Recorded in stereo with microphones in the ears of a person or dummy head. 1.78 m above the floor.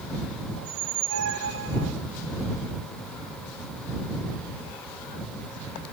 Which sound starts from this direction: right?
A squeak, at 0.6 s.